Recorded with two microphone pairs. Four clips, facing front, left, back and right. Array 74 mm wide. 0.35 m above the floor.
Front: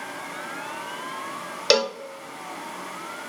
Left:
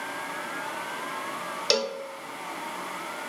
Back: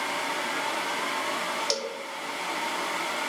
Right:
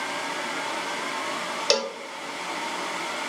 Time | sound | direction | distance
1.7 | a cowbell | 15° right | 0.7 m